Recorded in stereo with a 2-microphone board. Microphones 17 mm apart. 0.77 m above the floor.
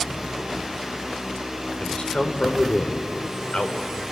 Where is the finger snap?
I don't hear a finger snap.